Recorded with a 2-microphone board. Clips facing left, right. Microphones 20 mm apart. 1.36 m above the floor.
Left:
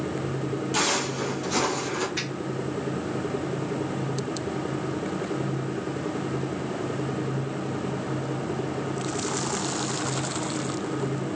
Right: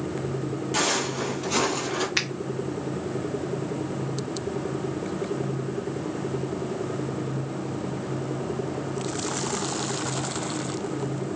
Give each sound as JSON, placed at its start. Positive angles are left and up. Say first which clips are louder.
{"t": 0.7, "sound": "footsteps", "louder": "right 1 dB", "side_deg": 0, "distance_m": 1.5}
{"t": 2.2, "sound": "a finger snap", "louder": "right 4 dB", "side_deg": -85, "distance_m": 0.5}